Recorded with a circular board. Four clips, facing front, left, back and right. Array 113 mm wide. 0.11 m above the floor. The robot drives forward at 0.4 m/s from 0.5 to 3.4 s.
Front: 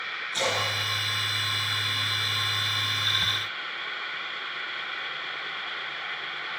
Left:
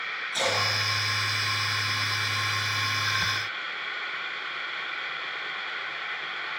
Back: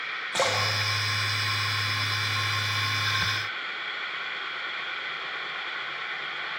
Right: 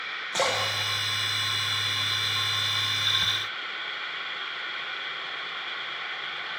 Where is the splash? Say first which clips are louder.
Right 1 dB, back 2 dB; 145° right, 4.5 m; by 2.3 s 150° right, 5 m.